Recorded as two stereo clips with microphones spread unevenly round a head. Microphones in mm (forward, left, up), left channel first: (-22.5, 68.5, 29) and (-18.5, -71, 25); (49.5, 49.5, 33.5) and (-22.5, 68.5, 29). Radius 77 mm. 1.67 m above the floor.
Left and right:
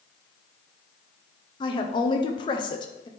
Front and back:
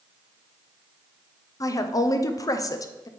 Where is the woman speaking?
30° left, 0.8 m.